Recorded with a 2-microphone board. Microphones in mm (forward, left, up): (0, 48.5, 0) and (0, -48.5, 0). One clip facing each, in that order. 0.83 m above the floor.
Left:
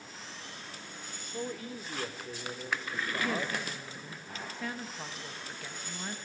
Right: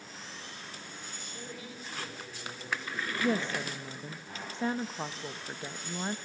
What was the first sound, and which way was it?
A man speaking, 50° left (ahead or behind).